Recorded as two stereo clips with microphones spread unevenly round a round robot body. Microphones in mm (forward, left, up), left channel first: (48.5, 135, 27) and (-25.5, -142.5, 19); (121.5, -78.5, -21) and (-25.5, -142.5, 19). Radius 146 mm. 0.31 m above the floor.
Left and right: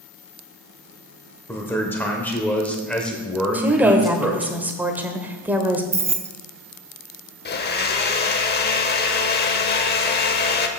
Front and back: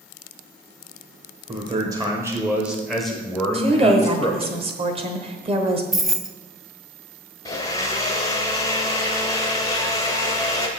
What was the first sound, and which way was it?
A man speaking, 150° left.